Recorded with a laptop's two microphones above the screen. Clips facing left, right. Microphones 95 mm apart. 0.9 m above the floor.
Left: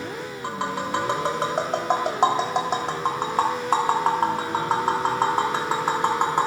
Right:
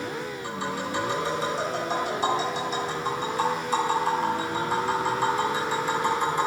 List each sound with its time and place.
0.4 s tapping: 70° left (ahead or behind), 1.4 m